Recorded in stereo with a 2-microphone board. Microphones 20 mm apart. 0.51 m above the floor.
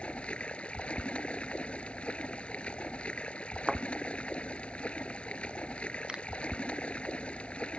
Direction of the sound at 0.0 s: 85° left.